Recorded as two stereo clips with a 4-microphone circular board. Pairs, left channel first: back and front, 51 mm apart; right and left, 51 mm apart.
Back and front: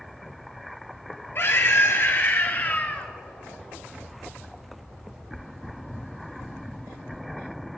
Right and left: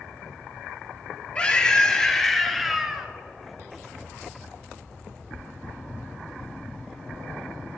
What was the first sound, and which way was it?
A scream, 155° right.